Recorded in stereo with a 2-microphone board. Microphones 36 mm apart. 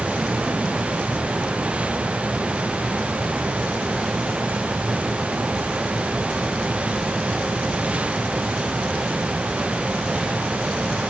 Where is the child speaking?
No child speaking in this recording.